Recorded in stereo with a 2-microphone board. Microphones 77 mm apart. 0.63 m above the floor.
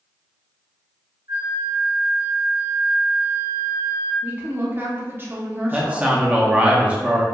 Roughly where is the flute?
Right.